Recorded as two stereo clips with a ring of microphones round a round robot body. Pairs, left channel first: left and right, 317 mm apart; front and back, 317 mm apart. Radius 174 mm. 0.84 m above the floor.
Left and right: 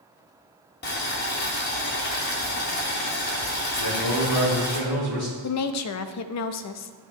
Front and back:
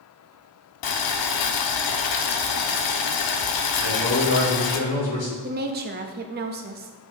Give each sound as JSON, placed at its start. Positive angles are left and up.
{"t": 0.8, "sound": "boiling", "azimuth_deg": 30, "distance_m": 0.6}
{"t": 3.8, "sound": "a man speaking", "azimuth_deg": 50, "distance_m": 3.5}
{"t": 5.4, "sound": "a woman speaking", "azimuth_deg": 120, "distance_m": 0.6}